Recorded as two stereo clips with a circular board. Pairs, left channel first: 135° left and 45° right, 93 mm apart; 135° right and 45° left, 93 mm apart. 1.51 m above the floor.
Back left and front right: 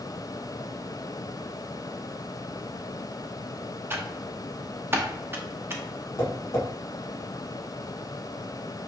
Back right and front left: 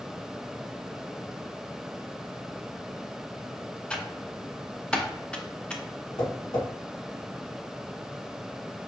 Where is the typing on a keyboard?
70° right, 0.7 m.